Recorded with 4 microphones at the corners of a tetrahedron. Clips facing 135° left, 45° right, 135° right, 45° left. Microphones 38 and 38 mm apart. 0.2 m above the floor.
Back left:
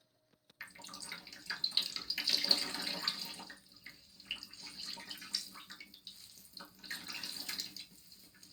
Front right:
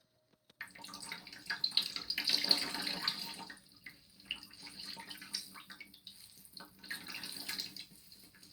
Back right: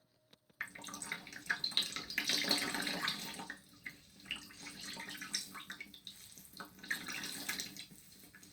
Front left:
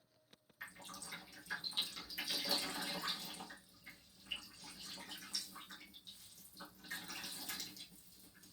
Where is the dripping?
120° right, 0.6 m.